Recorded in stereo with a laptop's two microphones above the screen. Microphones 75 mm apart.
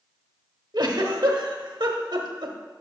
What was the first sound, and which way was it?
A giggle, 65° right (ahead or behind).